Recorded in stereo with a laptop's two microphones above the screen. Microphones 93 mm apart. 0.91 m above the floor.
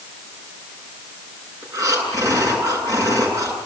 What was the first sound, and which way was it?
Breathing, 35° right (ahead or behind).